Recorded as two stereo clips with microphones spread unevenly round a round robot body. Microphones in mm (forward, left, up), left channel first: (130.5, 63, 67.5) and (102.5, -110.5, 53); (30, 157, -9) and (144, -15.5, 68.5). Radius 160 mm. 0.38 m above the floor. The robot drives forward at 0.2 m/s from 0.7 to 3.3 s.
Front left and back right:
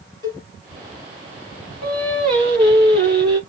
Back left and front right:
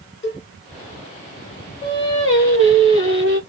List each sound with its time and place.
0.2 s a cowbell: 175° right, 0.9 m
1.8 s singing: 165° right, 1.2 m